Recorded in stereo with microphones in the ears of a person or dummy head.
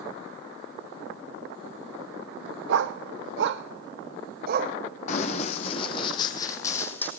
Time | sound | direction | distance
2.7 | a dog barking | 60° right (ahead or behind) | 1.3 m
5.1 | running footsteps | 40° left (ahead or behind) | 2.5 m